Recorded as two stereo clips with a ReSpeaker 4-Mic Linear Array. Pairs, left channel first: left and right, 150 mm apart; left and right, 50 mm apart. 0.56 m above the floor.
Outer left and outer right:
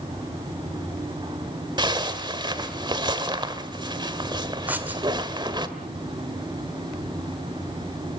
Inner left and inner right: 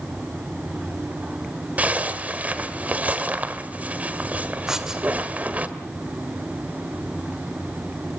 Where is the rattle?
No rattle in this recording.